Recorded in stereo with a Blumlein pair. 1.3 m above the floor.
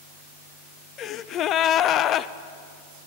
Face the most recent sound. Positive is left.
turn(degrees=30)